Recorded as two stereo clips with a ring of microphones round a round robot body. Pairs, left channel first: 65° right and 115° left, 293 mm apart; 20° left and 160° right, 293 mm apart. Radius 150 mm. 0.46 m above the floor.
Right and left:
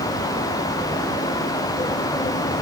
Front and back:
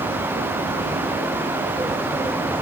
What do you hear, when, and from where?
Only background noise.